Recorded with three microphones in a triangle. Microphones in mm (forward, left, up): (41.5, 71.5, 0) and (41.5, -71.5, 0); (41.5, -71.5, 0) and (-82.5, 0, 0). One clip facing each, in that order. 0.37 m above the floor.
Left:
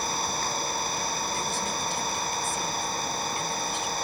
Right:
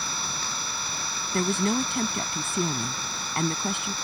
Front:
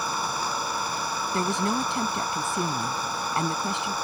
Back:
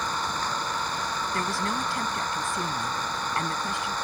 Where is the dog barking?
No dog barking in this recording.